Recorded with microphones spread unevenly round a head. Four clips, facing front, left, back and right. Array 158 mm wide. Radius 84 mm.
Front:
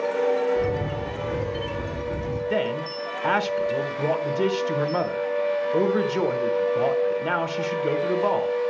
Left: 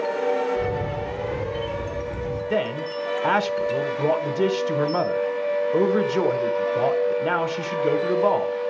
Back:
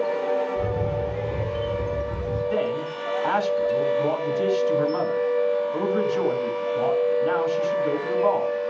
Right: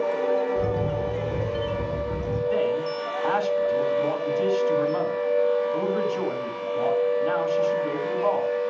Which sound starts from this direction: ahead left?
A man speaking, at 2.5 s.